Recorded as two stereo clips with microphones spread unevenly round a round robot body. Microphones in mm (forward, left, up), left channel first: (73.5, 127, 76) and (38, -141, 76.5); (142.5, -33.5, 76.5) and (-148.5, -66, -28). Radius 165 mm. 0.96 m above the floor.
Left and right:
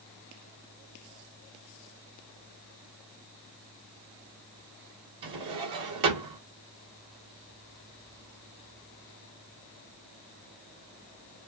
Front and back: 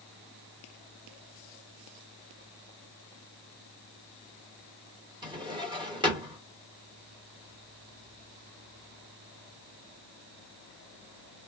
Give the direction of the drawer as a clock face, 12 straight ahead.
3 o'clock.